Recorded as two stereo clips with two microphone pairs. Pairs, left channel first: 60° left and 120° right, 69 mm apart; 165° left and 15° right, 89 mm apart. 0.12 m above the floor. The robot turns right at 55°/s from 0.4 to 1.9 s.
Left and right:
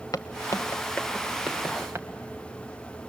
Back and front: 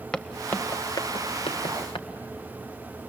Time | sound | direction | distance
0.1 | footsteps | 90° left | 1.1 m